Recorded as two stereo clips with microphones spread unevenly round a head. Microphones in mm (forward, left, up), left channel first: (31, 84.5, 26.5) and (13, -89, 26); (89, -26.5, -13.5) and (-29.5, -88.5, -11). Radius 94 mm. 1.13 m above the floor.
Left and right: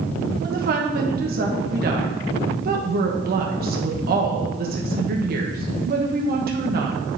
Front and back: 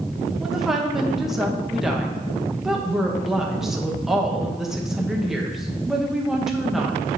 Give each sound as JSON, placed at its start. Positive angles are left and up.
{"t": 0.4, "sound": "a woman speaking", "azimuth_deg": -65, "distance_m": 1.2}